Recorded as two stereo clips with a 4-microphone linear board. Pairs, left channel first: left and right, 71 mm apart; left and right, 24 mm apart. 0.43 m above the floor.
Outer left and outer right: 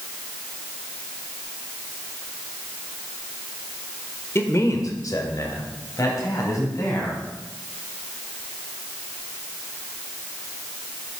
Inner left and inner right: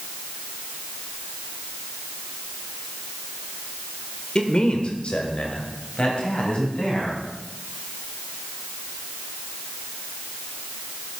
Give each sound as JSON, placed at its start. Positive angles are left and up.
{"t": 4.3, "sound": "a man speaking", "side_deg": 35, "distance_m": 1.5}